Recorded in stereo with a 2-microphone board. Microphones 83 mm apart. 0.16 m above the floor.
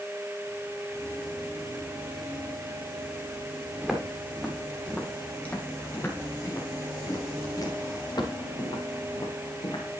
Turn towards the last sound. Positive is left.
turn(degrees=70)  # may be behind; listen again after turning